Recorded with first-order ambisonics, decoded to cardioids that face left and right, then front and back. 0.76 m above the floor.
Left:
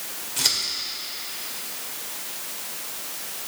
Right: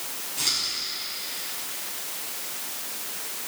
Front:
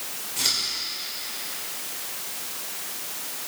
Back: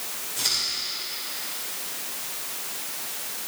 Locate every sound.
0.4 s scissors: 80° left, 3.5 m